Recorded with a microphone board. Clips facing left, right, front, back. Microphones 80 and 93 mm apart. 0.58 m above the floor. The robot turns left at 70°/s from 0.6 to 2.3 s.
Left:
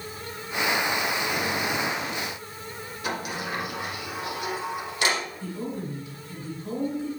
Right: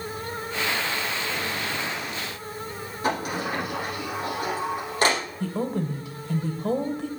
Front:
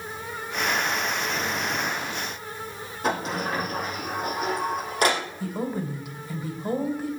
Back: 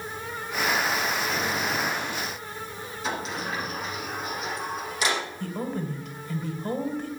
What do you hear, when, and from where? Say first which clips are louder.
3.0 s a sliding door: right 5 dB, front 5 dB; 40° right, 4.5 m
5.4 s a woman speaking: right 5 dB, front 2 dB; 80° right, 2.5 m